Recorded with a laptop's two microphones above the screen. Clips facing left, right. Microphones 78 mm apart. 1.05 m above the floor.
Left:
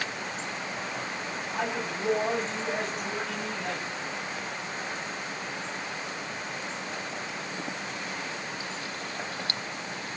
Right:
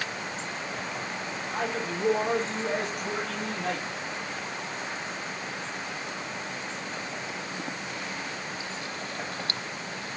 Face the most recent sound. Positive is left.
turn(degrees=-65)  # may be behind; listen again after turning